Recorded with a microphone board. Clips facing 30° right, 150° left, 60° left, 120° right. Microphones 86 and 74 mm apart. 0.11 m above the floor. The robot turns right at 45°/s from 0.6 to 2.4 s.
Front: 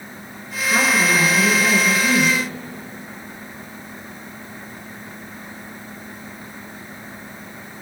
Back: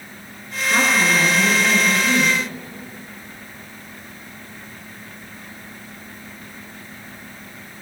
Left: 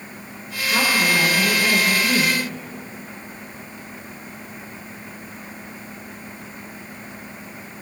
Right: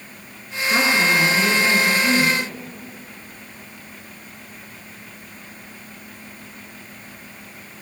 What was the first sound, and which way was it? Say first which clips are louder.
A woman speaking: even, right 2 dB; 125° right.